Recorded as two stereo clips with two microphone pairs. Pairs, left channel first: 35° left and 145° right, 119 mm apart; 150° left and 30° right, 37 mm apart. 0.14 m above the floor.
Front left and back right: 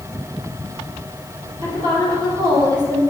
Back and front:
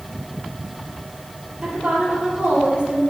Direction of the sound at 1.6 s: 95° right.